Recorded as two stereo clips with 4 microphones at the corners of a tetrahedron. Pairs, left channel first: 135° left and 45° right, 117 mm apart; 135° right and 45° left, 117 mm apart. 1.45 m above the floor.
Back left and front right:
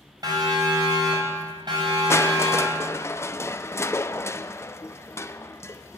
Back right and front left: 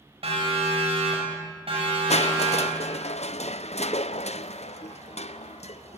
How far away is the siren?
About 7.5 m.